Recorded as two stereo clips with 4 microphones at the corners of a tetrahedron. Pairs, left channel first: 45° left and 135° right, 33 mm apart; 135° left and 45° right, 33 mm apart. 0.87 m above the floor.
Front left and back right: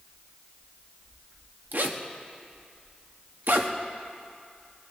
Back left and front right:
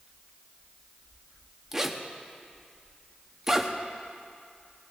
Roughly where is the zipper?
Behind right.